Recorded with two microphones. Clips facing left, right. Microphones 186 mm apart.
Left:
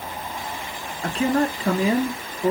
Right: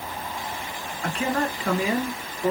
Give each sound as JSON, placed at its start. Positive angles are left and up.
{"t": 1.0, "sound": "a man speaking", "side_deg": 35, "distance_m": 1.4}